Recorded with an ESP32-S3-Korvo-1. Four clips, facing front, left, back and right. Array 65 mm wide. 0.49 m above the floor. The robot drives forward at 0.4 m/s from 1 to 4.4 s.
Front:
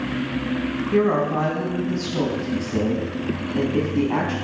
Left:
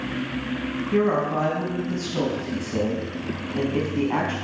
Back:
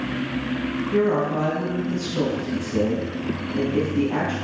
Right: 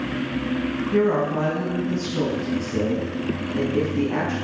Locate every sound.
0.9 s a woman speaking: 40° left, 4 m; by 4.3 s 55° left, 3 m